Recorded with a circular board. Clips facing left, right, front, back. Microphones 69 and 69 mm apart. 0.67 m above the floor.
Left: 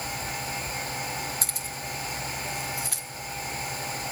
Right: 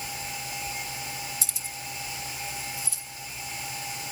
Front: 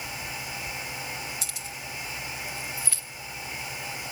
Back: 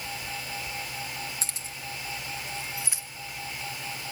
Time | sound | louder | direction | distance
1.4 | keys jangling | left 4 dB, front 1 dB | 125° left | 2 m